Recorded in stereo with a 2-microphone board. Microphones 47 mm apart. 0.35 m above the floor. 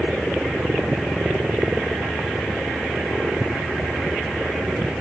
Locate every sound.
0.0 s a helicopter: 10° right (ahead or behind); by 5.0 s 15° right (ahead or behind)